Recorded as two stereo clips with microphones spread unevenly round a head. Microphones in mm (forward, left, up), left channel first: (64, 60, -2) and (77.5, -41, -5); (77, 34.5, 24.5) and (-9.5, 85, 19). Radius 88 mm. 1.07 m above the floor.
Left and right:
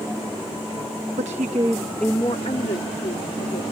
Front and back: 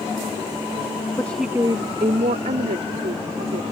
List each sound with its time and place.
1.2 s a woman speaking: 105° right; by 3.6 s 145° left